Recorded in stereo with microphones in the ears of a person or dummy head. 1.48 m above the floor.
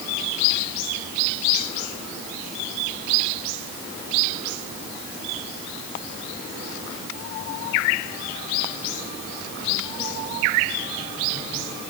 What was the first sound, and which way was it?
Only background noise.